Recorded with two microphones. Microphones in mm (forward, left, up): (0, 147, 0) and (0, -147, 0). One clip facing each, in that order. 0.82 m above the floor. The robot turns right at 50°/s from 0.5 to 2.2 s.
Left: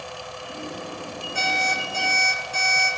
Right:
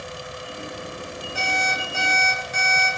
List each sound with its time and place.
1.4 s an alarm clock: 5° right, 8 m; by 2.9 s 40° left, 8 m